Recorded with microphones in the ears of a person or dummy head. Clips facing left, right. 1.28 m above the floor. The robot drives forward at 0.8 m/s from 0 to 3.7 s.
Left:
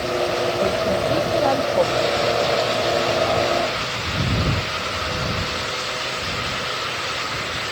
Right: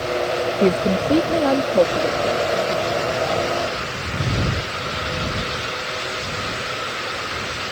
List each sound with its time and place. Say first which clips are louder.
0.6 s a woman speaking: right 5 dB; 60° right (ahead or behind); by 3.6 s 20° right (ahead or behind)